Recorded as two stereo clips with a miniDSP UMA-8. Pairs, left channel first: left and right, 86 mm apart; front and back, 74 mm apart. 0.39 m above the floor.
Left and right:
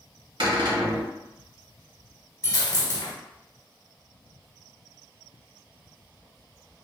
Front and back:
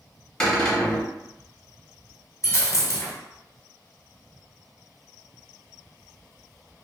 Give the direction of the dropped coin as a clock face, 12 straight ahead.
11 o'clock.